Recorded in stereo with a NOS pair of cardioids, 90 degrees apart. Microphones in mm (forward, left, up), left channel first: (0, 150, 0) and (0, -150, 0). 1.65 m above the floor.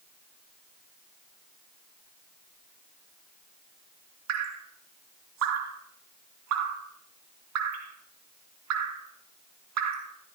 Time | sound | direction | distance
4.3 | dripping | 65° right | 2 m